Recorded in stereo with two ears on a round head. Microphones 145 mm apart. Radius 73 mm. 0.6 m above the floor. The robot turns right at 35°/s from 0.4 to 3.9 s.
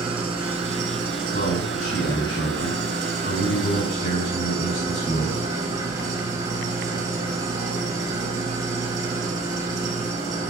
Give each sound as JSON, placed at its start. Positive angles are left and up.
{"t": 0.0, "sound": "an engine running", "azimuth_deg": -145, "distance_m": 3.0}
{"t": 1.3, "sound": "a man speaking", "azimuth_deg": 40, "distance_m": 6.0}